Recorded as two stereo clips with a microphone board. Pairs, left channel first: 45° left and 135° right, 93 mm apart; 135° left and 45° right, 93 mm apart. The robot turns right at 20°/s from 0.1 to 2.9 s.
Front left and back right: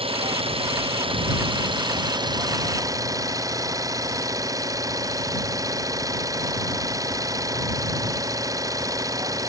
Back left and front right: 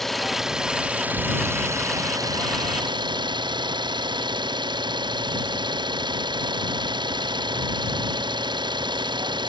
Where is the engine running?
140° right; by 9.5 s 85° right.